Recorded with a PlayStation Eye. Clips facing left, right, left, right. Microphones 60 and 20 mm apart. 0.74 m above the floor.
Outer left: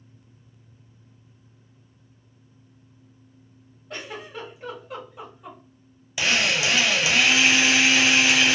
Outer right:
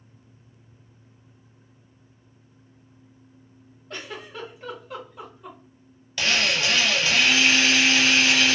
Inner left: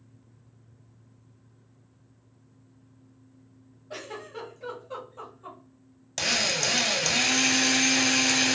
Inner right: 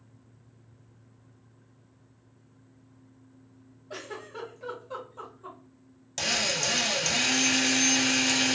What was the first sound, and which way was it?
A giggle, 10° left (ahead or behind).